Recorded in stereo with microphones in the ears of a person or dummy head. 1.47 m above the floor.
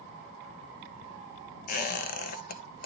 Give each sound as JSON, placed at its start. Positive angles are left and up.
{"t": 1.7, "sound": "a squeak", "side_deg": 45, "distance_m": 0.7}